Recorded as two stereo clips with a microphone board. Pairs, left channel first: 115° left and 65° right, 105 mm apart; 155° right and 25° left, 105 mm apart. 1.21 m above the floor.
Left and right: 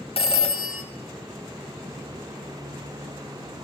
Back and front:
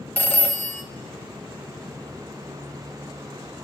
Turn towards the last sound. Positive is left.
turn(degrees=130)